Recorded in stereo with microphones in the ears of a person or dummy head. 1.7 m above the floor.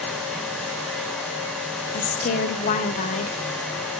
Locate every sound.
1.9 s a woman speaking: 40° left (ahead or behind), 1.1 m